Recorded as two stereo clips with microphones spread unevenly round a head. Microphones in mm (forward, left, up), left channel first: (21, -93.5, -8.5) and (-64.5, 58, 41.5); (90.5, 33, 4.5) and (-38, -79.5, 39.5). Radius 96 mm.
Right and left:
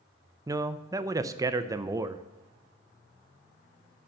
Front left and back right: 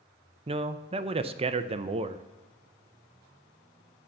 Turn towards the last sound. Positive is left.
turn(degrees=-160)